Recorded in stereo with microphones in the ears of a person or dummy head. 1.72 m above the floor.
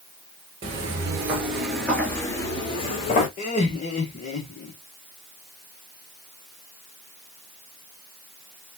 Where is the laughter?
45° left (ahead or behind), 1.6 m.